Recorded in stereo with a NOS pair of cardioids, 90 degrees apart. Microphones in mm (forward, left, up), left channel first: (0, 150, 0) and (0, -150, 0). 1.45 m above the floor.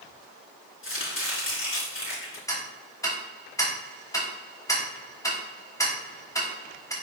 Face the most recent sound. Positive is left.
turn(degrees=10)